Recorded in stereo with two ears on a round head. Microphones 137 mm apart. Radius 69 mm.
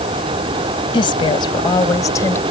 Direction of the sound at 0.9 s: 35° left (ahead or behind).